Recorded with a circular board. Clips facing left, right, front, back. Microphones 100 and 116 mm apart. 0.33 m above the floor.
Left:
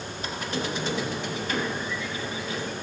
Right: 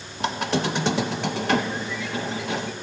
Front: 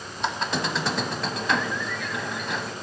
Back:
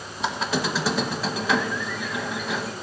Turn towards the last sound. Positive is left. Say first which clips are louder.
# right 7 dB, back 2 dB
turn(degrees=-95)